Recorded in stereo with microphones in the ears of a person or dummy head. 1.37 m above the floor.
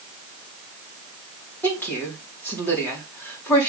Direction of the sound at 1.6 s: 10° left (ahead or behind).